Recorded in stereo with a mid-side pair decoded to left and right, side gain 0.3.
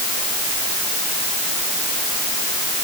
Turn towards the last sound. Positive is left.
No sound to turn to.